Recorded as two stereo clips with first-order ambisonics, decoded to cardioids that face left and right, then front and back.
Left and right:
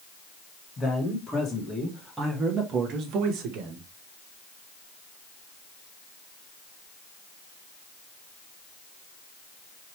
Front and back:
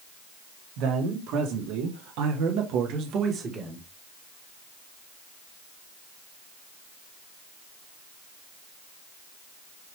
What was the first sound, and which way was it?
A man speaking, 160° left.